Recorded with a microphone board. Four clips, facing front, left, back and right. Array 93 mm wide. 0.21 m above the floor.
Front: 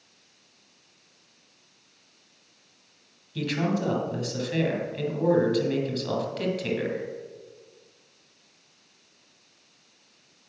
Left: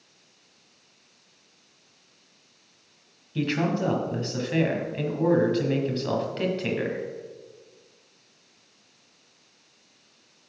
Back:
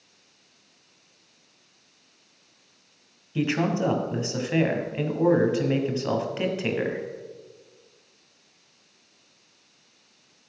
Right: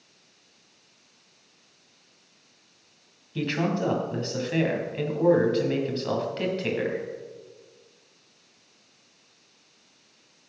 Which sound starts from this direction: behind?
A man speaking, at 3.4 s.